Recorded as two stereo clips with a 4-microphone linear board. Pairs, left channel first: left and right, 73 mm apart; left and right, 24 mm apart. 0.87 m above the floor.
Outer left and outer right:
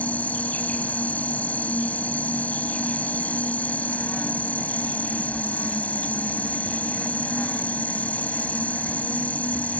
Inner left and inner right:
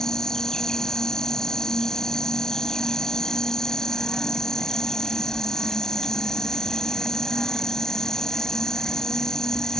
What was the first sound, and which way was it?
An insect, 20° left (ahead or behind).